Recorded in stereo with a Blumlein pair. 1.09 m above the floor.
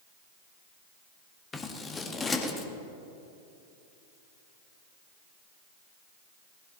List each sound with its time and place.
1.5 s scissors: 15° left, 1.6 m